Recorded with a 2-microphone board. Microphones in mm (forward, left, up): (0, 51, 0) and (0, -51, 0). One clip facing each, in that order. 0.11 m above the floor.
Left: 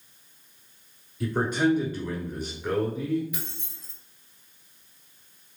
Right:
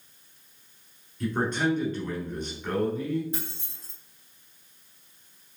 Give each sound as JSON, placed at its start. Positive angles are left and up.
{"t": 1.2, "sound": "a man speaking", "side_deg": 5, "distance_m": 1.2}
{"t": 3.3, "sound": "keys jangling", "side_deg": -30, "distance_m": 1.5}